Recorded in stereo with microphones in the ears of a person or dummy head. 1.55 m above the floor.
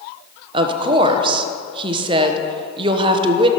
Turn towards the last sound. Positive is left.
turn(degrees=-30)  # may be behind; listen again after turning